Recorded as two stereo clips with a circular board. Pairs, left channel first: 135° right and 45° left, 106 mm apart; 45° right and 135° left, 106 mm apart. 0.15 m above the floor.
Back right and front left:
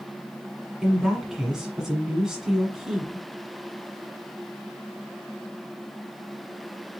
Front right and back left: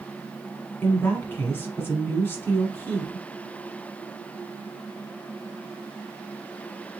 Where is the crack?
I don't hear a crack.